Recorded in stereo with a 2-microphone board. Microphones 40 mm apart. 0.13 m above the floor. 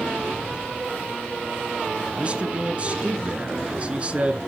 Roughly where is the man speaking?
Right.